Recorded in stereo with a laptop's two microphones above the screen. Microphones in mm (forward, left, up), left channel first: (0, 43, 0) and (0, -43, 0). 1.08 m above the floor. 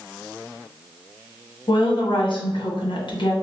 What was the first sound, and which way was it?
A woman speaking, 80° left.